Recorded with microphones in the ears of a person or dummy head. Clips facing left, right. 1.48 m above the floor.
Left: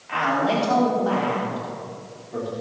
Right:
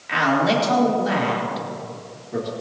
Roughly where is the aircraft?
I don't hear an aircraft.